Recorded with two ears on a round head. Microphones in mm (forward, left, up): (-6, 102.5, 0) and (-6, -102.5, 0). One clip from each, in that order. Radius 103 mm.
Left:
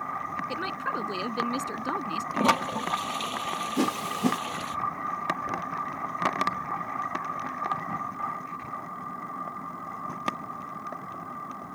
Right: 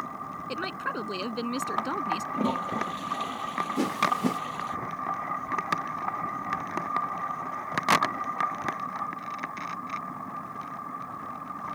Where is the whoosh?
15° left (ahead or behind).